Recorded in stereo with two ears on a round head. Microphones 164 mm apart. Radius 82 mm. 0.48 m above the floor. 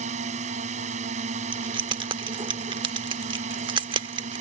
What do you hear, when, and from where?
0.0 s a drone: 40° right (ahead or behind)
1.5 s keys jangling: 25° right (ahead or behind)